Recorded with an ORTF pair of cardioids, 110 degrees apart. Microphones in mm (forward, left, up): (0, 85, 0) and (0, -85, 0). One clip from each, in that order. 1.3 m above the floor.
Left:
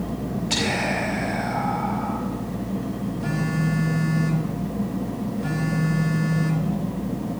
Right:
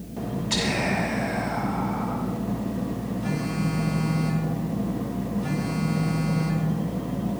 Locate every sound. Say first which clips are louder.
0.5 s whispering: left 2 dB; 20° left, 4.5 m
3.2 s a phone buzzing: left 3 dB; 15° left, 4.5 m